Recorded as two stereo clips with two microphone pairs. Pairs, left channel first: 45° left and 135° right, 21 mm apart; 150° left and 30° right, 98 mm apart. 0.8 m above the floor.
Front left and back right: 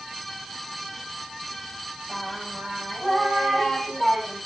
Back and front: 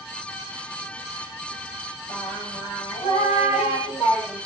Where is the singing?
110° left, 6 m.